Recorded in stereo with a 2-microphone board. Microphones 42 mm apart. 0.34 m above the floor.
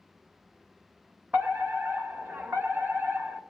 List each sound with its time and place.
1.3 s a fire alarm: 45° right (ahead or behind), 3.5 m